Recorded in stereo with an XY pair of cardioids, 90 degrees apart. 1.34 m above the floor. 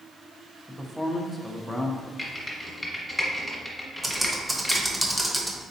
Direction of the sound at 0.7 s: 10° left.